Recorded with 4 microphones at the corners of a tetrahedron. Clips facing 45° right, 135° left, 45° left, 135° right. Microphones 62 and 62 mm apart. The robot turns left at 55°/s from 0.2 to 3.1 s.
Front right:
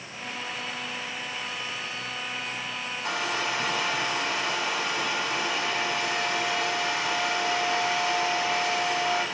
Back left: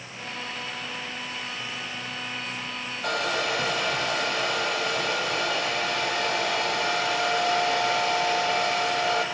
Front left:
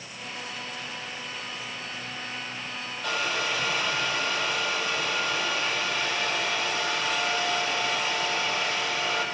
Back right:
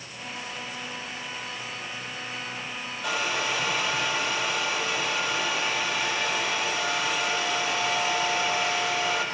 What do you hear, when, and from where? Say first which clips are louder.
3.0 s a hair dryer: back left 3 dB, back right 1 dB; 140° left, 5 m; by 9.2 s 135° left, 5 m